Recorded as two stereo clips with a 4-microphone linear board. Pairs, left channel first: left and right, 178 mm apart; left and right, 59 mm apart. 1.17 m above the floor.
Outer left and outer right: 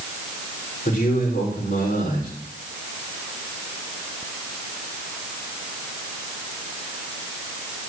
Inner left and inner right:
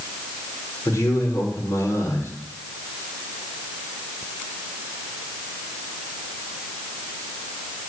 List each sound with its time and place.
0.8 s a man speaking: 55° left (ahead or behind), 4 m